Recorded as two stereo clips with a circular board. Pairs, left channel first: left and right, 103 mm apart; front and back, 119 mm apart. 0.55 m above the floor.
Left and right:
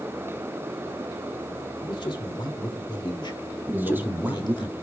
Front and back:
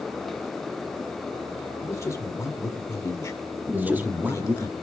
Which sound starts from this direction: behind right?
A man speaking, at 3.7 s.